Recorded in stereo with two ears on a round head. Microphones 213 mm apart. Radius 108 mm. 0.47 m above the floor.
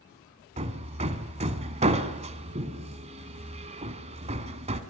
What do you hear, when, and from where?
0.6 s hammering: 30° right (ahead or behind), 1.4 m